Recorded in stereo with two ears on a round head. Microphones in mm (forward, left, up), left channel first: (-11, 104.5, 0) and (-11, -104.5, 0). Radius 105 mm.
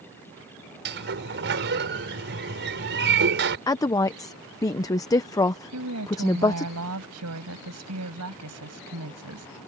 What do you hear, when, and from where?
0.8 s a sliding door: 55° right (ahead or behind)
3.7 s a woman speaking: 15° left (ahead or behind)
5.7 s a woman speaking: 75° right (ahead or behind)